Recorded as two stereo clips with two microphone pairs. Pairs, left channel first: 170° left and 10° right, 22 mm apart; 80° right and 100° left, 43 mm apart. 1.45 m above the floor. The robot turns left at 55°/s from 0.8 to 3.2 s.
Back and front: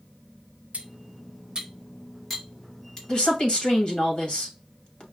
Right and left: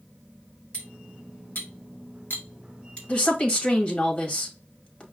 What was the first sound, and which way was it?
Cutlery clinking, 20° right.